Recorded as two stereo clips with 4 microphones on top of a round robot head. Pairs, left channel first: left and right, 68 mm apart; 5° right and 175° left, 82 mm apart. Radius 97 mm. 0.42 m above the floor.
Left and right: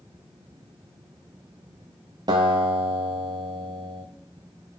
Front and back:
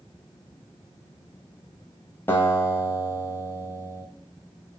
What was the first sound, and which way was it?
A guitar, 70° right.